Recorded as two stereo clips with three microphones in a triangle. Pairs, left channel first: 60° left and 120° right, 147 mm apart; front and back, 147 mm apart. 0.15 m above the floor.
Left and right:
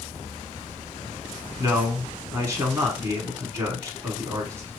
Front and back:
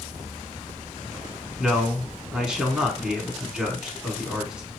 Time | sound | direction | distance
1.6 | a man speaking | 110° right | 1.2 m